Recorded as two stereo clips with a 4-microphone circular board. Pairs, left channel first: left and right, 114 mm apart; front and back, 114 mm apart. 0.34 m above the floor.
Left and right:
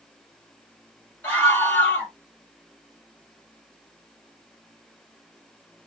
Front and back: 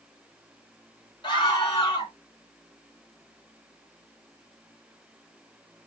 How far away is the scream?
About 2 m.